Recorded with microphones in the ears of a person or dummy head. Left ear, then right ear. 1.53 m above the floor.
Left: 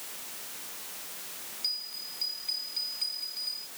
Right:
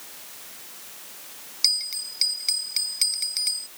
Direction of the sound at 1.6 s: 60° right (ahead or behind).